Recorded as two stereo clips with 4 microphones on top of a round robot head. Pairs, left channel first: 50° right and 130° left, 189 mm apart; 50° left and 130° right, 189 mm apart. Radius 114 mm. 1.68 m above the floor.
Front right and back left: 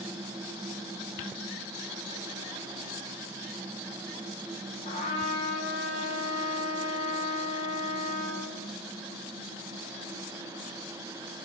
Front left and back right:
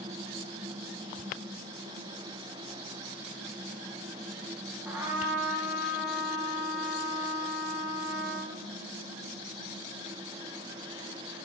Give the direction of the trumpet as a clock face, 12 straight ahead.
2 o'clock.